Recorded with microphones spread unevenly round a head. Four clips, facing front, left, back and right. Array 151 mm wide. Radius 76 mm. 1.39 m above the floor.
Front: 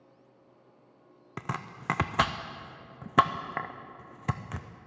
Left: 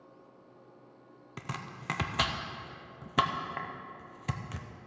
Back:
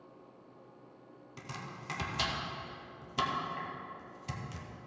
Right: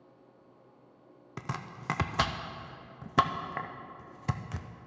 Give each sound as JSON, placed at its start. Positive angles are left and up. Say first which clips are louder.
{"t": 1.4, "sound": "chopping", "louder": "right 2 dB, front 8 dB", "azimuth_deg": -5, "distance_m": 0.6}